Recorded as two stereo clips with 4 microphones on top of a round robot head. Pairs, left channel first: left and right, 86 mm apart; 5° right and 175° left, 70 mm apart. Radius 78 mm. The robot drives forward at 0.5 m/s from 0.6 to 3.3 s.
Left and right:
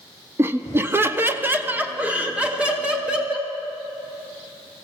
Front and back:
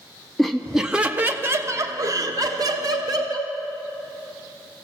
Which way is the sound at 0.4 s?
90° right.